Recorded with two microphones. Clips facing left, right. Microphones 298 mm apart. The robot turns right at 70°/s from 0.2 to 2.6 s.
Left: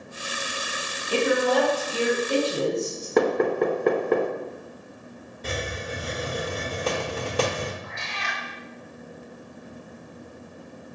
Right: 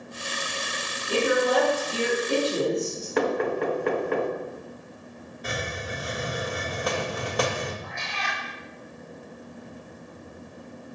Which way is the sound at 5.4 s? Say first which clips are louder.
Left 2 dB; 30° left (ahead or behind).